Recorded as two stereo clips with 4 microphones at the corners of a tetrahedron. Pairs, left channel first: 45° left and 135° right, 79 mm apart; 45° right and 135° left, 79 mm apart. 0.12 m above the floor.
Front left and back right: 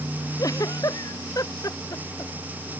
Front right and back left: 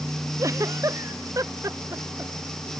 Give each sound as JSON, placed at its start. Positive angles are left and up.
{"t": 0.4, "sound": "a giggle", "azimuth_deg": 85}